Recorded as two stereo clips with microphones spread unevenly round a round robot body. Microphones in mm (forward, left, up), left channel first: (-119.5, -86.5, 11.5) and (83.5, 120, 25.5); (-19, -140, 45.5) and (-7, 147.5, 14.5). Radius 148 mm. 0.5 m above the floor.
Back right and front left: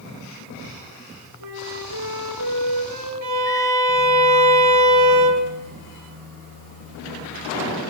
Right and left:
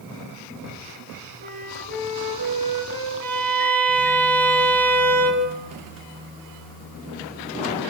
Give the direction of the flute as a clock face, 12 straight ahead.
11 o'clock.